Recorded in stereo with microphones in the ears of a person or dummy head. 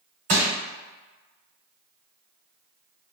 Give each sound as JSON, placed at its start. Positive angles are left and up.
{"t": 0.3, "sound": "crushing", "side_deg": -40, "distance_m": 1.5}